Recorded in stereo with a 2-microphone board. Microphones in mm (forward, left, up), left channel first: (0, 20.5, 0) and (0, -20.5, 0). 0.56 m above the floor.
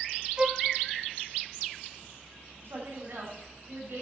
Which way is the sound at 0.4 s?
25° right (ahead or behind).